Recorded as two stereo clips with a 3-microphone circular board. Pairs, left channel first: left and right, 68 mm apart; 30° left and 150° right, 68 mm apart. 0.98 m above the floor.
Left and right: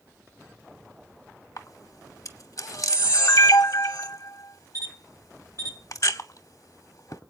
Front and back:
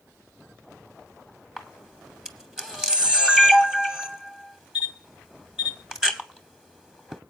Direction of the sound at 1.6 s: 130° left.